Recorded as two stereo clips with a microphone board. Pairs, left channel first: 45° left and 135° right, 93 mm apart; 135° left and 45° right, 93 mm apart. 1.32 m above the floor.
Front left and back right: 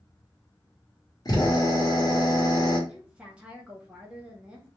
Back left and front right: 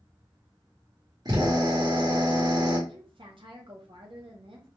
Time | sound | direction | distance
1.2 | a drill | straight ahead | 1.0 m
2.9 | a woman speaking | 60° right | 0.5 m